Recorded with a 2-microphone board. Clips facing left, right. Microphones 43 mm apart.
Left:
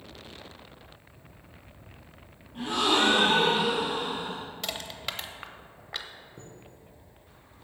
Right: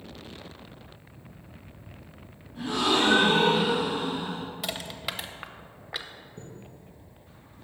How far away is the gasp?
About 3.5 m.